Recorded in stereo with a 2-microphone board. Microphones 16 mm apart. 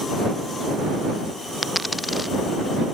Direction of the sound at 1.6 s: 5° right (ahead or behind).